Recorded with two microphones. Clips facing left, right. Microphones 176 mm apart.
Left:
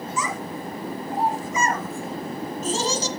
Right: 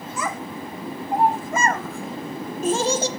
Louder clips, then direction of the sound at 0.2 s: Right 2 dB; 60° right (ahead or behind).